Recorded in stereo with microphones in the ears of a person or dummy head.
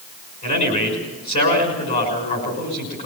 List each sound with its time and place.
0.4 s a man speaking: 45° left (ahead or behind), 6 m